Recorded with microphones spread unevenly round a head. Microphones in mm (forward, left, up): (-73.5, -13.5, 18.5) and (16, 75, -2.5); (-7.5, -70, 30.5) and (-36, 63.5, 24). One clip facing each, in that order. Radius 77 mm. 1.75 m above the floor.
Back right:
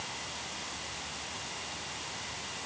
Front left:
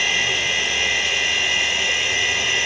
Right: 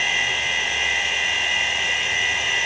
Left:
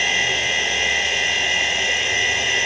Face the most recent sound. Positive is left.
turn(degrees=45)